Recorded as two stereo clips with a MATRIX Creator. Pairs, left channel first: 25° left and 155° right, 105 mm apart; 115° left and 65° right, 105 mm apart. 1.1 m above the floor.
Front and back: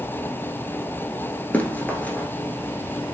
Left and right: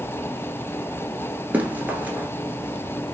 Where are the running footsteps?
25° right, 1.1 m.